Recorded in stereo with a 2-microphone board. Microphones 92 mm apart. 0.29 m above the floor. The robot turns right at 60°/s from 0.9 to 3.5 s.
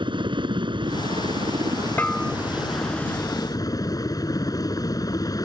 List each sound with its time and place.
0.0 s a helicopter: 110° right; by 5.5 s 45° left
2.0 s a bell: 20° left (ahead or behind); by 2.3 s centre (ahead or behind)